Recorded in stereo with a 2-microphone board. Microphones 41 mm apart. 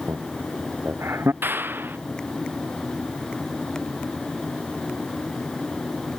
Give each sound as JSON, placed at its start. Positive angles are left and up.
{"t": 0.1, "sound": "laughter", "side_deg": -85}
{"t": 1.4, "sound": "a clap", "side_deg": -60}